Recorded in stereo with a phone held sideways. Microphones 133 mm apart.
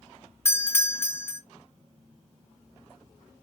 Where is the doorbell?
20° left (ahead or behind), 0.8 m.